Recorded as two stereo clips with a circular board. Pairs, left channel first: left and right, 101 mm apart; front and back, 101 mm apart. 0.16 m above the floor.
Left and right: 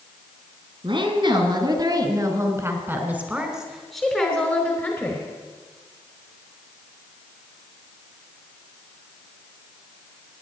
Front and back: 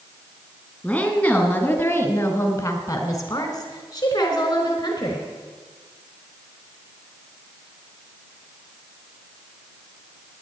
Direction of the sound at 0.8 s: 75° right.